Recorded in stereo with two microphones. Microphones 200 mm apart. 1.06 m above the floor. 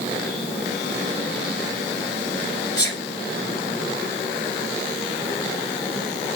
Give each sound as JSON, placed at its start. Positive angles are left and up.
{"t": 2.8, "sound": "a sneeze", "side_deg": 20, "distance_m": 1.8}